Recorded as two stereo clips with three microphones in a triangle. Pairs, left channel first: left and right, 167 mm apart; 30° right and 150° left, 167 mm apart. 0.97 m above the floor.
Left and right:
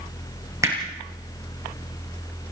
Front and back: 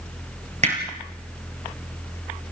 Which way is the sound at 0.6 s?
160° right.